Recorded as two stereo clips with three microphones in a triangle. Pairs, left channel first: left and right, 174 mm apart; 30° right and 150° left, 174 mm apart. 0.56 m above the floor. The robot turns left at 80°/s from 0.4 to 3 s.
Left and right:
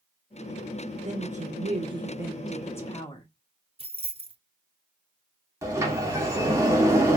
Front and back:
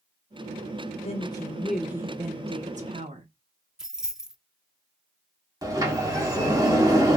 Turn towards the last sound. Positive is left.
turn(degrees=-150)